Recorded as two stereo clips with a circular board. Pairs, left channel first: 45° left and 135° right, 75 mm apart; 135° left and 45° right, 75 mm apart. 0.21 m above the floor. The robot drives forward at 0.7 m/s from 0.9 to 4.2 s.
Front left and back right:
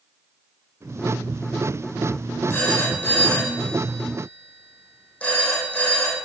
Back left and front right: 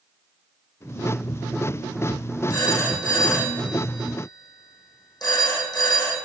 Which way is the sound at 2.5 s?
105° left.